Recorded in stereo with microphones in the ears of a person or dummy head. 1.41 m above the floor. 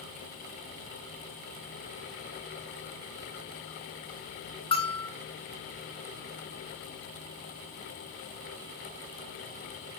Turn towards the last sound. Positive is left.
turn(degrees=20)  # may be behind; listen again after turning